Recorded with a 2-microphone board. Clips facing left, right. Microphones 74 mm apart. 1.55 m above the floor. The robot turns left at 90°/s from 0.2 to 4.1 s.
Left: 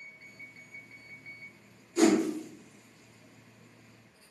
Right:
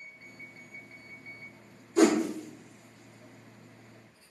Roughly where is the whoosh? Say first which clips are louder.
Right 1 dB; right.